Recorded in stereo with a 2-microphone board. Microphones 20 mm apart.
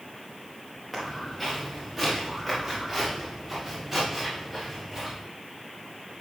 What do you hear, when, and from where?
0.9 s footsteps: 5° left (ahead or behind), 4.5 m; by 5.2 s 5° right (ahead or behind), 9 m